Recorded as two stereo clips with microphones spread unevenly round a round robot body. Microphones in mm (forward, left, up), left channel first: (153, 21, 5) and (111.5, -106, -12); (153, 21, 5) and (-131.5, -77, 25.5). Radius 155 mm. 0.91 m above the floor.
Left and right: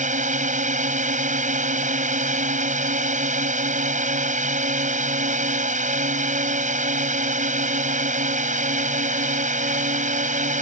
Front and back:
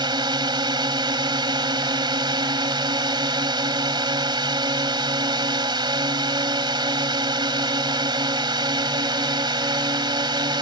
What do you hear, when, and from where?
0.0 s a drone: 85° right